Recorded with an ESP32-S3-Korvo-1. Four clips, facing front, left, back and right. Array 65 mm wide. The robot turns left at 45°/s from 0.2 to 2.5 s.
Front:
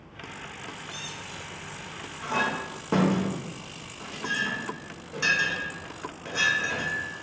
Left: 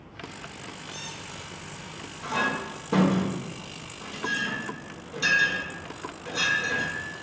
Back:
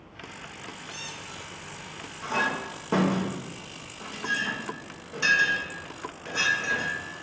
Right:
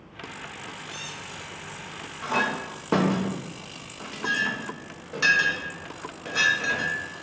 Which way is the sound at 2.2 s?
75° right.